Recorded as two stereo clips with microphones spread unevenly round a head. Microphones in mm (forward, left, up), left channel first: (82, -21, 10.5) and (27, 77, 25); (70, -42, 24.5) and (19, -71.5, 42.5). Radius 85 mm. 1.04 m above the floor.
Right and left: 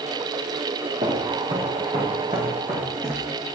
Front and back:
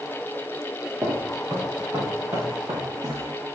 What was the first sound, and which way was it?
Footsteps, 160° left.